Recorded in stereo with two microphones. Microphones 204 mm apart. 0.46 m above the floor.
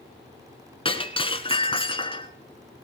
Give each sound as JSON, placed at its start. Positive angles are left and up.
{"t": 0.8, "sound": "breaking glass", "side_deg": 25, "distance_m": 1.5}